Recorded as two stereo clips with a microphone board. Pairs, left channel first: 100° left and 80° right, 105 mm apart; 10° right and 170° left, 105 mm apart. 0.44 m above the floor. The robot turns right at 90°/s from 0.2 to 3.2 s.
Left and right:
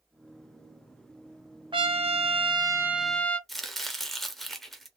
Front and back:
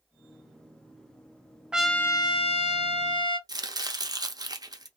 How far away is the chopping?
About 0.6 m.